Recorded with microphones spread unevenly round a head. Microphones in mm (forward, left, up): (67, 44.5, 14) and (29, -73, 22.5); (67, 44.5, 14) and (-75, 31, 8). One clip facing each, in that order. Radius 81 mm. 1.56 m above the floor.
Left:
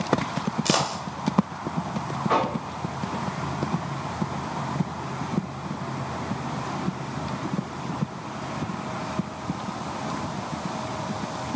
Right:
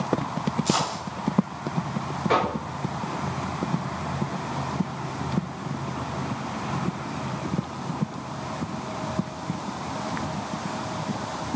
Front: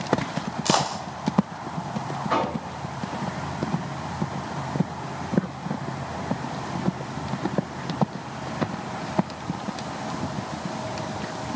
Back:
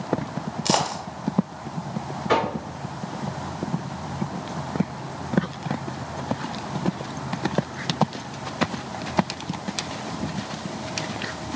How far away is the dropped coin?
About 2.5 m.